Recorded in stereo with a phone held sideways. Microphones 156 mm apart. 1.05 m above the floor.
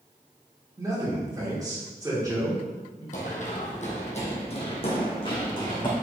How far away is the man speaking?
About 2.5 m.